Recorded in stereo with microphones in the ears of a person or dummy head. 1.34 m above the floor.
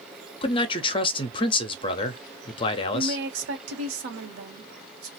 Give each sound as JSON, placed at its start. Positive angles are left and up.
{"t": 0.4, "sound": "a man speaking", "side_deg": 30, "distance_m": 0.5}
{"t": 2.9, "sound": "a woman speaking", "side_deg": -75, "distance_m": 1.1}